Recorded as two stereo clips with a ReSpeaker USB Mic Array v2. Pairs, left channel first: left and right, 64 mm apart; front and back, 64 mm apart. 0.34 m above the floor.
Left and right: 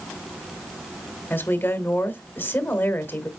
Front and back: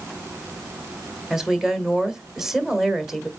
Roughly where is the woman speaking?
Left.